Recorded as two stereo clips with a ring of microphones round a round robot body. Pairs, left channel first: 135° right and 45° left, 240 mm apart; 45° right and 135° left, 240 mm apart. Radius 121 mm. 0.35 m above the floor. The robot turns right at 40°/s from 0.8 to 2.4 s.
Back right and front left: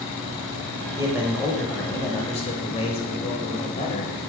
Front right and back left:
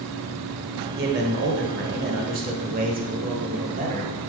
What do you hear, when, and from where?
1.0 s a man speaking: 115° left, 1.3 m; by 4.1 s 170° left, 1.3 m